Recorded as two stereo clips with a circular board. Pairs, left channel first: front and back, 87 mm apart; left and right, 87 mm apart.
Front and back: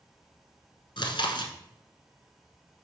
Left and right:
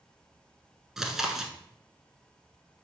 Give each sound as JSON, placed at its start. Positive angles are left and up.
{"t": 1.0, "sound": "chewing", "azimuth_deg": -5, "distance_m": 1.0}